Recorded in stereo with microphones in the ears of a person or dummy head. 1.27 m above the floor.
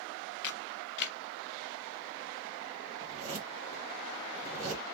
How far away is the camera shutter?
About 0.5 m.